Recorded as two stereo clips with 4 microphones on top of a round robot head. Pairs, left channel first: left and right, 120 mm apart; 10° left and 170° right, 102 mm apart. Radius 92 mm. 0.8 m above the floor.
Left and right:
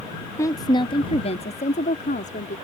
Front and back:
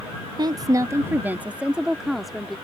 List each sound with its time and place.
0.4 s a woman speaking: 155° left; by 2.6 s 95° left